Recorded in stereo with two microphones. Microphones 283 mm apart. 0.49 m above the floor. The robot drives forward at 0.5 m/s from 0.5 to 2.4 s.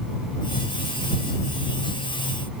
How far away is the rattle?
I don't hear a rattle.